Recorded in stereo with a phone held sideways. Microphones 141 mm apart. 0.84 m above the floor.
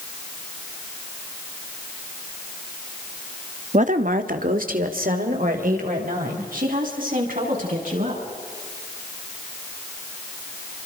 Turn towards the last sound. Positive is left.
turn(degrees=-75)  # may be behind; listen again after turning